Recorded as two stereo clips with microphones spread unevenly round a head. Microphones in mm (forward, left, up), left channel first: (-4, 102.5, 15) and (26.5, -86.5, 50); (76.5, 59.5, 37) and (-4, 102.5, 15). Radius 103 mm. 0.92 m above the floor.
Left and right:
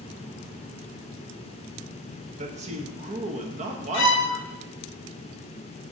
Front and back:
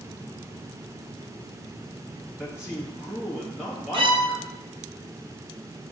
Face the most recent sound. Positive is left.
turn(degrees=125)